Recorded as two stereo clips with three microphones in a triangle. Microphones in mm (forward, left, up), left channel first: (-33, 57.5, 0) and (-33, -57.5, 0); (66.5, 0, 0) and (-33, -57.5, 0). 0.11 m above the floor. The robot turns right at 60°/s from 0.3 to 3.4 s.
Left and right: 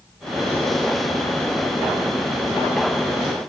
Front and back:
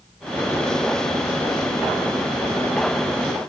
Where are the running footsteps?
I don't hear running footsteps.